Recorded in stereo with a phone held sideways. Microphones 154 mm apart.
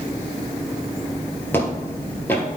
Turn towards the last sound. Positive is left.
turn(degrees=15)  # may be behind; listen again after turning